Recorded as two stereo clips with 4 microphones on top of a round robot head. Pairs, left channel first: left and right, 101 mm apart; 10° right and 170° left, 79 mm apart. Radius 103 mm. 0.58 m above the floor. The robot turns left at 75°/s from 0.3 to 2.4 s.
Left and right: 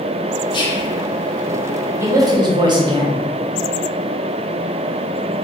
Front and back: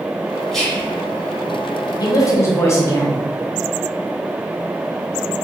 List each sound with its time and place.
0.5 s whispering: 85° left, 1.4 m; by 0.9 s 50° left, 1.4 m
2.0 s a man speaking: 30° right, 1.0 m; by 3.2 s 60° right, 1.0 m